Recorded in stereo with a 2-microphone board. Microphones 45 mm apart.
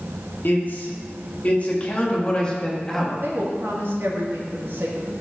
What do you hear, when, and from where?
0.4 s a man speaking: 45° left (ahead or behind), 2.5 m; by 3.1 s 10° left (ahead or behind), 1.9 m
3.2 s a woman speaking: 55° right (ahead or behind), 1.9 m